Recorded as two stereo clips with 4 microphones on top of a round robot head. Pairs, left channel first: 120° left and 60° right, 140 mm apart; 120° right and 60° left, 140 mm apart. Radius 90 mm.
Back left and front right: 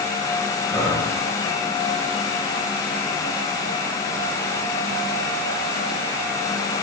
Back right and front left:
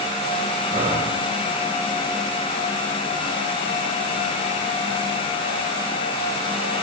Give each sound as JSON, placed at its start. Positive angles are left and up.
{"t": 0.7, "sound": "breathing", "azimuth_deg": 40, "distance_m": 2.0}